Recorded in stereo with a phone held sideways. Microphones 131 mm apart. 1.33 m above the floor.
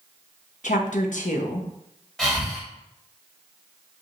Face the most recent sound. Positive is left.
turn(degrees=5)  # may be behind; listen again after turning